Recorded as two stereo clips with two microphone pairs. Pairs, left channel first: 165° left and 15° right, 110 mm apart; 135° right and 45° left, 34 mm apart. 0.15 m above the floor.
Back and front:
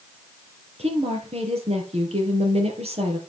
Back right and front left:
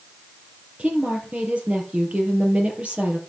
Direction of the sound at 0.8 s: 5° right.